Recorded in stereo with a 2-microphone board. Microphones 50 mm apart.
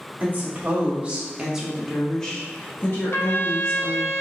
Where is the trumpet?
55° left (ahead or behind), 0.7 m.